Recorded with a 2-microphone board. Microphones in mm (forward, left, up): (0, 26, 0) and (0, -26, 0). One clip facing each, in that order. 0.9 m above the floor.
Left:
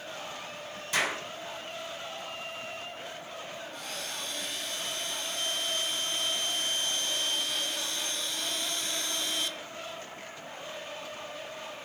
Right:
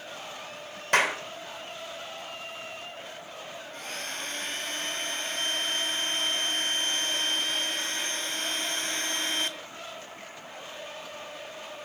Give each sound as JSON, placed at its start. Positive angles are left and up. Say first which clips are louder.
{"t": 0.9, "sound": "a clap", "louder": "right 6 dB", "side_deg": -55, "distance_m": 3.0}
{"t": 3.7, "sound": "a blender", "louder": "right 5 dB", "side_deg": -45, "distance_m": 1.3}